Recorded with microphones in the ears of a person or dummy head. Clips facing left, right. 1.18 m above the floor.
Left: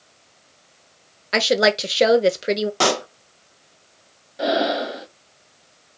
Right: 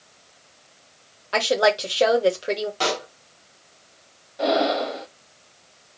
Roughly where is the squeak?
I don't hear a squeak.